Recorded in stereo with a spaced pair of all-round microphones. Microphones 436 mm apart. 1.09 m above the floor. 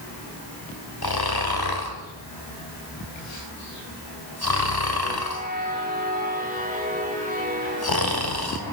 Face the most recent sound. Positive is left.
turn(degrees=55)  # may be behind; listen again after turning